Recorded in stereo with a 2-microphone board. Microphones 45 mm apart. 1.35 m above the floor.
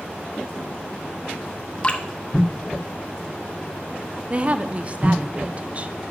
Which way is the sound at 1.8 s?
25° left (ahead or behind).